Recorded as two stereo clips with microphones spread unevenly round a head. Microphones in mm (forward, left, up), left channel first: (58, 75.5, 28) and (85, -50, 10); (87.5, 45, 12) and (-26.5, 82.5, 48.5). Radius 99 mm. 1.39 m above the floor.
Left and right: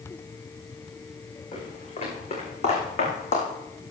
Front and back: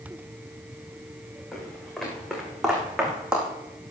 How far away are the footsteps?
About 5 m.